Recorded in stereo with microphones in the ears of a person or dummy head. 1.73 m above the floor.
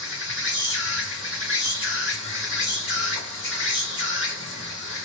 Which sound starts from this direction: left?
An insect, at 0.0 s.